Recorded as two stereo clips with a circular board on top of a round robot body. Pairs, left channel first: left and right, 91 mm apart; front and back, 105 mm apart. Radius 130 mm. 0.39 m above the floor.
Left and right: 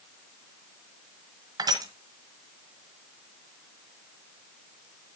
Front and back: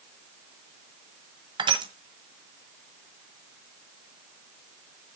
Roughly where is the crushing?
Behind right.